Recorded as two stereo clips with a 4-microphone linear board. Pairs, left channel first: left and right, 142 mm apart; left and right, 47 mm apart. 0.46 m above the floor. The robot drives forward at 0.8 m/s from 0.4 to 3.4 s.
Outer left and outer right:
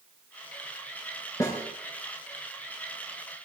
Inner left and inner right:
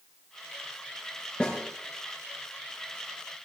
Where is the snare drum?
20° left (ahead or behind), 5 m.